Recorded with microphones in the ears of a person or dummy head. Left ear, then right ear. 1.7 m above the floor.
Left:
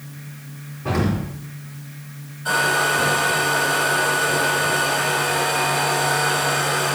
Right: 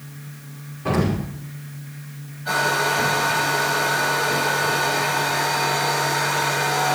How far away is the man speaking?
I don't hear a man speaking.